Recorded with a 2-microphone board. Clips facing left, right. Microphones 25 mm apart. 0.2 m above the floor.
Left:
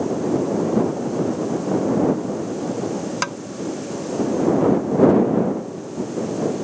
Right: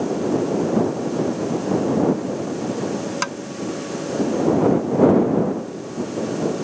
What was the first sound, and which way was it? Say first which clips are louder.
Tapping: even; 5° left (ahead or behind).